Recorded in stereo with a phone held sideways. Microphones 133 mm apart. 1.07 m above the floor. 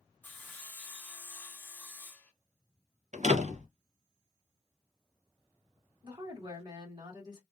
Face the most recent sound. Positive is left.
turn(degrees=-30)  # may be behind; listen again after turning